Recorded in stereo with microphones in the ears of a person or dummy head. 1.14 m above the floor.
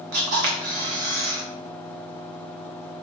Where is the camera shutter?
50° right (ahead or behind), 0.7 m.